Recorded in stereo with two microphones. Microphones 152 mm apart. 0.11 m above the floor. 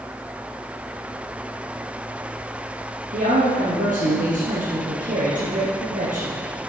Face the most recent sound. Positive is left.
turn(degrees=-60)  # may be behind; listen again after turning